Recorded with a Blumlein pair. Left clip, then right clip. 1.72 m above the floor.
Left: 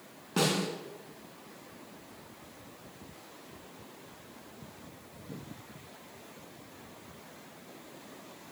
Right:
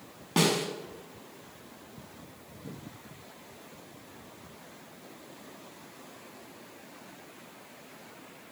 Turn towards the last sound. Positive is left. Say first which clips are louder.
# right 3 dB
turn(degrees=-45)